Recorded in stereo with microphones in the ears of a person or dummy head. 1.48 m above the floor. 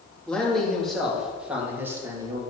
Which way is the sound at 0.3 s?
10° left (ahead or behind).